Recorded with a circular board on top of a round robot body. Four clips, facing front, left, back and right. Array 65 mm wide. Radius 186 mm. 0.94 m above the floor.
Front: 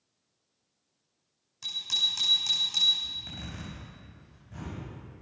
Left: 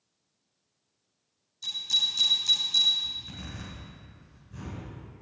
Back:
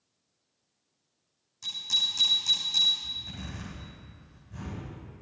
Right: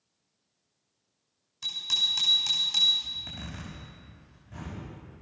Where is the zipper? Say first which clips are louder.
Even, back 1 dB; 55° right, 5.5 m.